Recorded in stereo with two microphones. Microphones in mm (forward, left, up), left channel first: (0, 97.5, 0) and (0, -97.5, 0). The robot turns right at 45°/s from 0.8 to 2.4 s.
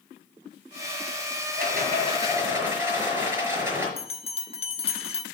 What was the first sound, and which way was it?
A rattle, 50° right.